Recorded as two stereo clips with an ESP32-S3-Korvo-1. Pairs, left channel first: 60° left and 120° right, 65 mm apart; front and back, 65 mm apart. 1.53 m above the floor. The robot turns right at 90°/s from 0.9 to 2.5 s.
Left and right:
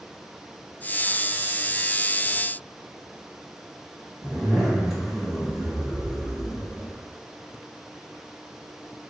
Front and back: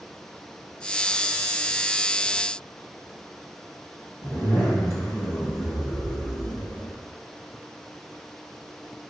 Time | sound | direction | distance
4.2 | a zipper | 35° right | 2 m